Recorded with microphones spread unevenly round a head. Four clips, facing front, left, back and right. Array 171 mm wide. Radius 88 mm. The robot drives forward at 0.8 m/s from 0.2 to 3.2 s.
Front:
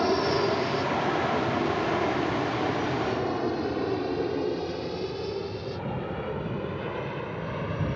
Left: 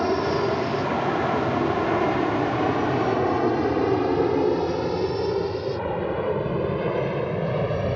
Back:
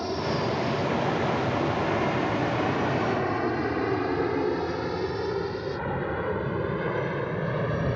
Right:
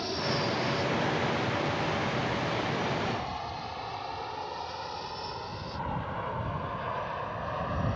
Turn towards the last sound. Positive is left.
turn(degrees=115)